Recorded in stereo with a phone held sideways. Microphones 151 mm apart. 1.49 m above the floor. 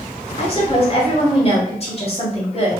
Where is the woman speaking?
40° left (ahead or behind), 1.3 m.